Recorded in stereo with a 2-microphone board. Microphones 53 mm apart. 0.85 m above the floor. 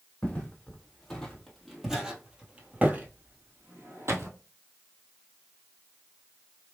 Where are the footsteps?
20° left (ahead or behind), 1.6 m; by 4.3 s 55° right (ahead or behind), 1.3 m.